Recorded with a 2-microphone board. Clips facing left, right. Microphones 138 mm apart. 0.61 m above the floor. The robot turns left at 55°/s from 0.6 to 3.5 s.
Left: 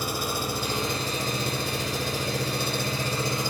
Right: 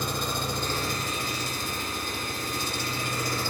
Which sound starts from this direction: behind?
An engine running, at 0.0 s.